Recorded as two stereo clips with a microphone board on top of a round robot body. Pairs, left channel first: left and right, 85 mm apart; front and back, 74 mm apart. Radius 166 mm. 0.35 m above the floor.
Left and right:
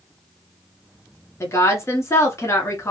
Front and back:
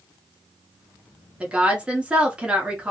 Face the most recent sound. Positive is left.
turn(degrees=115)